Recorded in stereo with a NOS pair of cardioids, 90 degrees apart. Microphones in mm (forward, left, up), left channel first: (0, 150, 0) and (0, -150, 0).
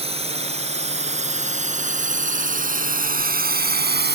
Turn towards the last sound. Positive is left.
turn(degrees=-35)